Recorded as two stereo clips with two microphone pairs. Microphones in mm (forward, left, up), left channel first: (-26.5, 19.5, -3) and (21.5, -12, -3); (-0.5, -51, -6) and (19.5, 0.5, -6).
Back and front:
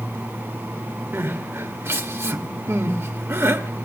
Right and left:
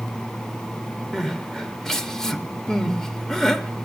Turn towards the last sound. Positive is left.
turn(degrees=-35)